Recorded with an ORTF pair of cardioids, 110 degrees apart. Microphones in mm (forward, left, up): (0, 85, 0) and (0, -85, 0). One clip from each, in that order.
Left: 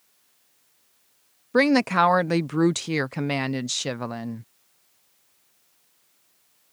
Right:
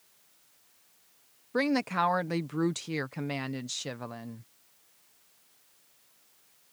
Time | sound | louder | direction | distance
1.5 | a woman speaking | left 9 dB | 45° left | ?